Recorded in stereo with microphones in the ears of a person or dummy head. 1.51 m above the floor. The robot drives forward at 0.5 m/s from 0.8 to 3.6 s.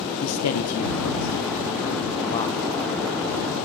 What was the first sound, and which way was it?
A man speaking, 75° left (ahead or behind).